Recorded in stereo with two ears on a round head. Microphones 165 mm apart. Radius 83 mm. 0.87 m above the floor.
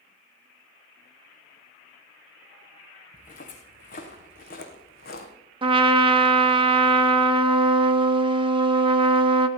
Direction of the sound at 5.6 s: 25° right (ahead or behind).